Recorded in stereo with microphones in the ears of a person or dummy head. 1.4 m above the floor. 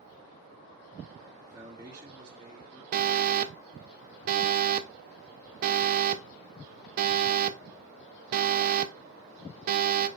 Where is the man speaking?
15° right (ahead or behind), 2.5 m.